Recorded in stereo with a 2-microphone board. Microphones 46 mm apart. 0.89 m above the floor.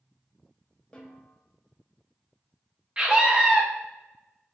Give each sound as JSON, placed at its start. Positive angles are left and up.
{"t": 0.9, "sound": "a snare drum", "side_deg": 15, "distance_m": 0.7}
{"t": 3.0, "sound": "a scream", "side_deg": -25, "distance_m": 0.6}